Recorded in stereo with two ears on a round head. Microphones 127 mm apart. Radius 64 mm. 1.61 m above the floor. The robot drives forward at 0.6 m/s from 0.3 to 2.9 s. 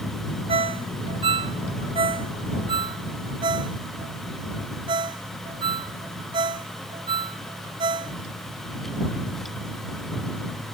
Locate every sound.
0.5 s a ringtone: 45° right (ahead or behind); by 8.2 s 35° right (ahead or behind)